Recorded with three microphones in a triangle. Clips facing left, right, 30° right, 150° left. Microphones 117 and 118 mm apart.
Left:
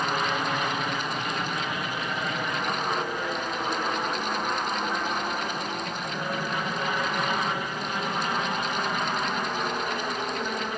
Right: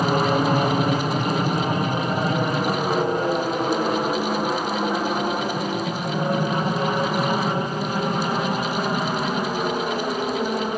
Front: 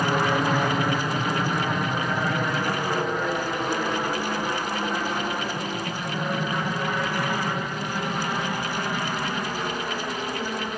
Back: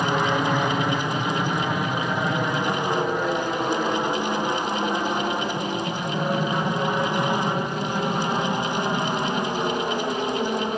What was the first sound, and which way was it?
An aircraft, 120° right.